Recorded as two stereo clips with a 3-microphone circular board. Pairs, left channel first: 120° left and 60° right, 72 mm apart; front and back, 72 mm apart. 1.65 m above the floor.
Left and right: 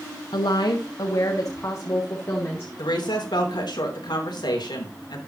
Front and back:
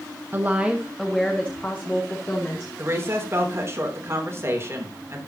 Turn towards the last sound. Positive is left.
turn(degrees=130)